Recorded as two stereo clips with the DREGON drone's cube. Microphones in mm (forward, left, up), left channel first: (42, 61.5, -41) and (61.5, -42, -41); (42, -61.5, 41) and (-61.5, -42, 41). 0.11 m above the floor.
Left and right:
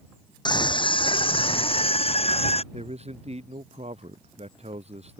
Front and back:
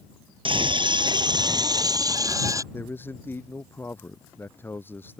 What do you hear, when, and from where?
0.5 s a scream: 140° left; by 2.6 s 115° left
2.7 s a man speaking: 80° right